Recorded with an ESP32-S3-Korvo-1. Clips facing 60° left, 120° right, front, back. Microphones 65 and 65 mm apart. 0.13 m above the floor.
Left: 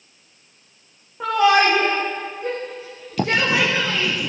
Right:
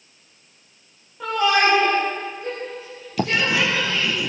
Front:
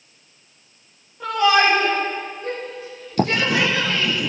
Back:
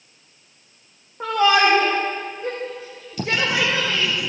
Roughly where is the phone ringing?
I don't hear a phone ringing.